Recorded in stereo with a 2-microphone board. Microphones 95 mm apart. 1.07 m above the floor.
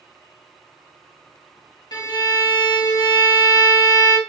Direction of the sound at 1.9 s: 45° left (ahead or behind).